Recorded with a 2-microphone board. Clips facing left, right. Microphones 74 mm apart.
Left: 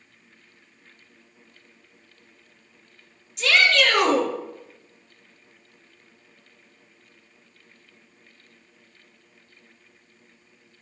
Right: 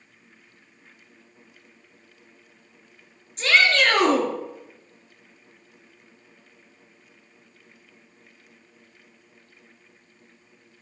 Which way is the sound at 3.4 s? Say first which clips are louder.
Even; 40° right (ahead or behind).